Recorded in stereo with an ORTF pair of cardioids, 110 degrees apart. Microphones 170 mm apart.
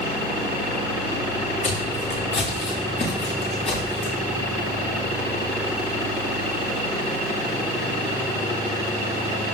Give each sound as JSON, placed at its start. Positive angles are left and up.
{"t": 1.6, "sound": "footsteps", "azimuth_deg": 60, "distance_m": 5.5}